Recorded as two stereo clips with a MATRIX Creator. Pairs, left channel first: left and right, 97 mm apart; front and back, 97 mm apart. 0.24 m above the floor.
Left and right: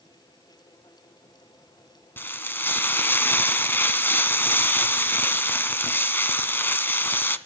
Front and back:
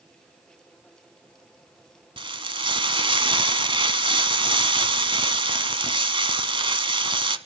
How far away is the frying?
About 1.1 m.